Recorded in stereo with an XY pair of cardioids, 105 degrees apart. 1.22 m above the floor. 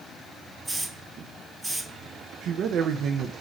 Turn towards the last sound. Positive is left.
turn(degrees=-70)